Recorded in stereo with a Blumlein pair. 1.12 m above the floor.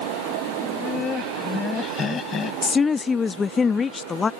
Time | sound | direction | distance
0.6 | laughter | 20° left | ?
2.6 | a woman speaking | 15° left | ?